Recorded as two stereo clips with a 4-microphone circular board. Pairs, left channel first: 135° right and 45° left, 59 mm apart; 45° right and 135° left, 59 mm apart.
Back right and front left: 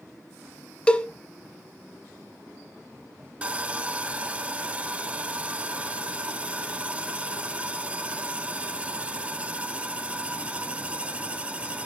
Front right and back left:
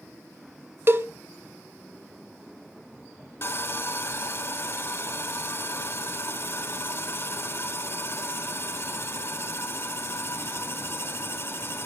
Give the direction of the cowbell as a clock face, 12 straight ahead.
7 o'clock.